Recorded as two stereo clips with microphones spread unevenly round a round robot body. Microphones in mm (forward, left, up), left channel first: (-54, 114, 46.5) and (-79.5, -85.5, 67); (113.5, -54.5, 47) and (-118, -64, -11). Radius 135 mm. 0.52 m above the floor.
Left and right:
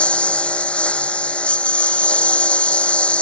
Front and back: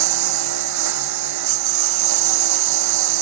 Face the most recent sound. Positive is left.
turn(degrees=170)